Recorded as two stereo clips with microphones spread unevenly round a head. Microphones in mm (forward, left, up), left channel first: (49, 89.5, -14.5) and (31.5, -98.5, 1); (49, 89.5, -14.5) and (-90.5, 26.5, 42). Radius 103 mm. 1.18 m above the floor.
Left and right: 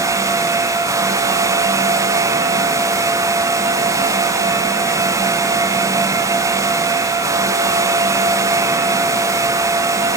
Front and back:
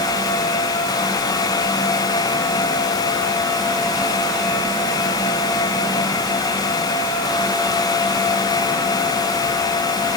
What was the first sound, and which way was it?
Only background noise.